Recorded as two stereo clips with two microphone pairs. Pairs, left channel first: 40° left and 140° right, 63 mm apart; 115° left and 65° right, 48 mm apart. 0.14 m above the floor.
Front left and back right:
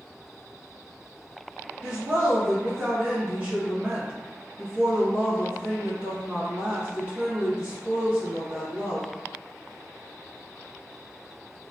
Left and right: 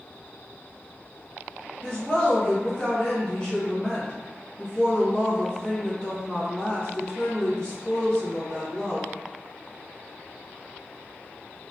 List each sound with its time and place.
1.8 s a woman speaking: 170° left, 1.6 m